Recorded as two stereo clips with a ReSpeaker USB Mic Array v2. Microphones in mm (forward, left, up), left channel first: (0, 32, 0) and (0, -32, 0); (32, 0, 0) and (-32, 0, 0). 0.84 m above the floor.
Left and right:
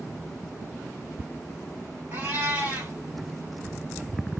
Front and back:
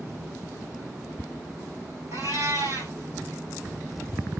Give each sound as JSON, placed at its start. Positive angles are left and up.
{"t": 2.1, "sound": "a cat meowing", "azimuth_deg": -150, "distance_m": 2.5}